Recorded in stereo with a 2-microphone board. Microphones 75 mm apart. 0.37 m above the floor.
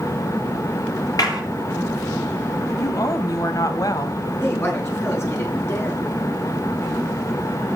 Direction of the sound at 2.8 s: 55° left (ahead or behind).